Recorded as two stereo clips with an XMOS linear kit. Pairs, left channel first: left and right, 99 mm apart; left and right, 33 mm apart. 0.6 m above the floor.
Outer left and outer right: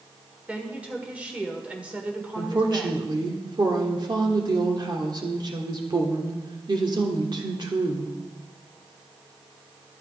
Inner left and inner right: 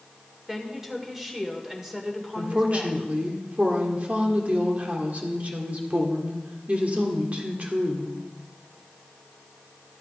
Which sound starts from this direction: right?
A woman speaking, at 2.4 s.